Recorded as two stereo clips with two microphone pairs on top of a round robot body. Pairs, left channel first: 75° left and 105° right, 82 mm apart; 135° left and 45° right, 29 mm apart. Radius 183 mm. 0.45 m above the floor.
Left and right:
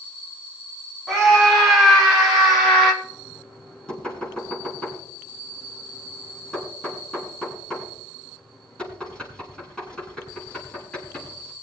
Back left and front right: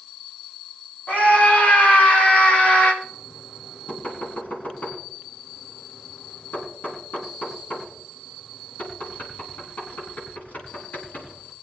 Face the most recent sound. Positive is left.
turn(degrees=155)